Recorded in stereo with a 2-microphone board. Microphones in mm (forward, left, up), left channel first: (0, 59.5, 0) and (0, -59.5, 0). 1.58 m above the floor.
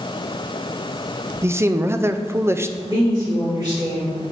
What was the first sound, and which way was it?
A man speaking, 20° right (ahead or behind).